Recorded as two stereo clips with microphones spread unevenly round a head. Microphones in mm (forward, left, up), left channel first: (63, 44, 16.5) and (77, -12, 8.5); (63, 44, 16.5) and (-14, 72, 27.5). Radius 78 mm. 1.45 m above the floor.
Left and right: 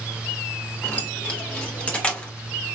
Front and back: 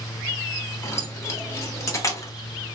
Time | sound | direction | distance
0.8 | keys jangling | 35° left | 2 m